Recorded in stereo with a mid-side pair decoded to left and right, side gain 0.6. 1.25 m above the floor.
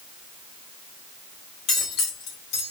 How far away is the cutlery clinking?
About 1.2 m.